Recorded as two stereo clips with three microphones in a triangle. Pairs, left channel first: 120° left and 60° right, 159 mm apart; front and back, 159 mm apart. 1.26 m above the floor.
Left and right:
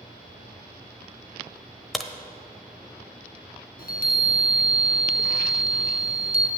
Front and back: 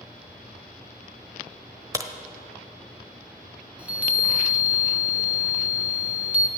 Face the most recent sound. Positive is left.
turn(degrees=100)